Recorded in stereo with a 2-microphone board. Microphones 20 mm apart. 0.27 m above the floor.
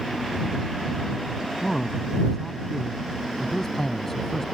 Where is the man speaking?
15° left (ahead or behind).